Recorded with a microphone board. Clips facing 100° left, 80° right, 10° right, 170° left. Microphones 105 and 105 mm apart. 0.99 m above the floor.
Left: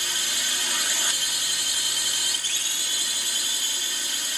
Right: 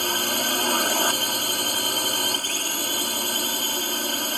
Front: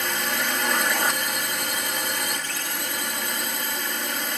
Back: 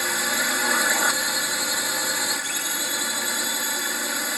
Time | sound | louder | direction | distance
0.0 | a drone | right 9 dB, even | 105° right | ?